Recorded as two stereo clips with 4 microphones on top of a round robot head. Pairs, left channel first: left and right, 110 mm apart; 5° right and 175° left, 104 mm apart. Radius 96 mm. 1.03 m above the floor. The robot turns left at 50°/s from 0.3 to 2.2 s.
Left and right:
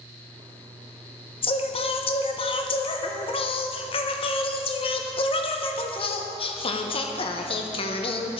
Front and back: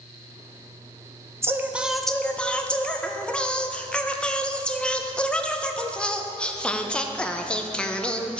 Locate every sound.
1.4 s singing: 115° left, 0.8 m; by 8.4 s 75° left, 0.8 m